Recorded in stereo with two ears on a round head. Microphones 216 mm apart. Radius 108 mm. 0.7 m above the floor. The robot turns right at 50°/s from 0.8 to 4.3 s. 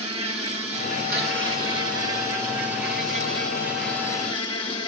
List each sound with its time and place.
0.0 s an insect: 150° right, 2.5 m; by 4.9 s 25° left, 2.5 m